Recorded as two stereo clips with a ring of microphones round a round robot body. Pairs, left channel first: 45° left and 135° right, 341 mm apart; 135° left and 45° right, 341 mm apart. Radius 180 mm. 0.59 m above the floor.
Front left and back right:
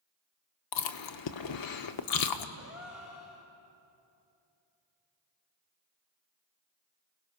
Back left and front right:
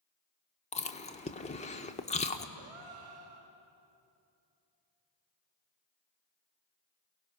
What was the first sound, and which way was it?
Chewing, 65° left.